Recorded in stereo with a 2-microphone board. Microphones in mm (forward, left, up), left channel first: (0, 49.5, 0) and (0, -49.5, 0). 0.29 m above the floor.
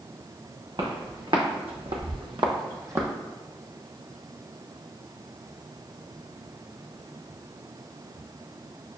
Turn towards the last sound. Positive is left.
turn(degrees=-25)  # may be behind; listen again after turning